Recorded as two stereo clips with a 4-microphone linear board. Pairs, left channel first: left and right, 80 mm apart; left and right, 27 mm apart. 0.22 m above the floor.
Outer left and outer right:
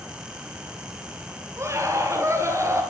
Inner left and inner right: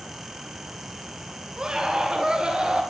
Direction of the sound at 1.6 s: 35° right (ahead or behind).